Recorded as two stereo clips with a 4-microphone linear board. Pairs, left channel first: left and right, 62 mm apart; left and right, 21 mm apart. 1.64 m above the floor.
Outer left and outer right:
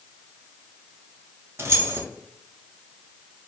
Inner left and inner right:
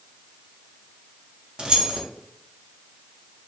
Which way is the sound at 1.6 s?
45° right (ahead or behind).